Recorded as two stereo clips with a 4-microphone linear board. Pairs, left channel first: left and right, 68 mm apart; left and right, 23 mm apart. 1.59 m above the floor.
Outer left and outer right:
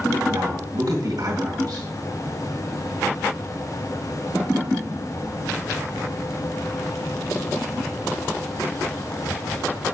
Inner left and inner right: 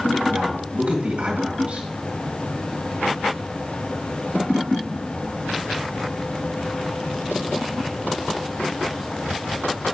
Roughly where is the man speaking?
Right.